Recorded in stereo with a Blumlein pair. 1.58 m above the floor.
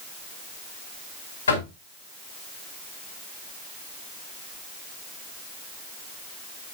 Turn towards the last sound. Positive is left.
turn(degrees=70)